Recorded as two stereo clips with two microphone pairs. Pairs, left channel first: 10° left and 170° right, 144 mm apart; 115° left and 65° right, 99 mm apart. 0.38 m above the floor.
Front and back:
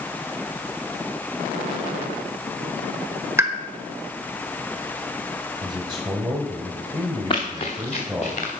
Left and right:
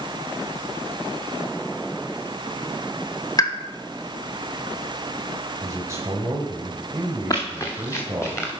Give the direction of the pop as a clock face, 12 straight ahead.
8 o'clock.